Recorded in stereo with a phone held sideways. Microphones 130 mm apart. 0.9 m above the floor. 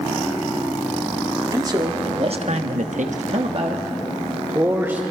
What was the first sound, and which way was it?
A man speaking, 30° right (ahead or behind).